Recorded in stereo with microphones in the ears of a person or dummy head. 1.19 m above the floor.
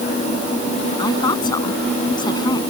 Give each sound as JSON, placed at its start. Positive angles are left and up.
{"t": 1.0, "sound": "a woman speaking", "side_deg": 25}